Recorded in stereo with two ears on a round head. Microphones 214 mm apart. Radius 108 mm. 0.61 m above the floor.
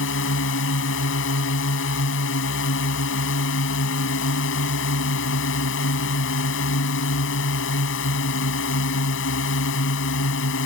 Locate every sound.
0.0 s a drone: 55° left (ahead or behind)